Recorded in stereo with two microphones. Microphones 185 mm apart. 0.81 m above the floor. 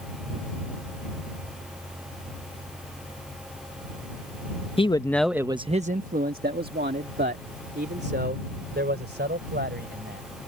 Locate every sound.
4.8 s a man speaking: 30° left (ahead or behind); by 10.3 s 65° right (ahead or behind)